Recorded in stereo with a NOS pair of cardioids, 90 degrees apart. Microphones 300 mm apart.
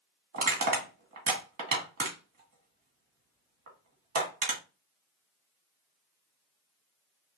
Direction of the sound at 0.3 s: 50° right.